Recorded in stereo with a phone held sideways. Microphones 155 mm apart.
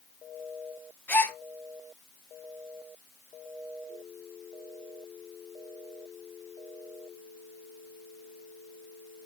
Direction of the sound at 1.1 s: 10° left (ahead or behind).